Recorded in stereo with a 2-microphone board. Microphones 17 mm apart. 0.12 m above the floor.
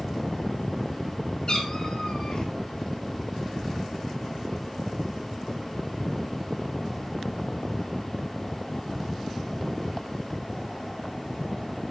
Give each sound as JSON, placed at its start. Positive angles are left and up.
{"t": 1.5, "sound": "a cat meowing", "side_deg": 55, "distance_m": 1.6}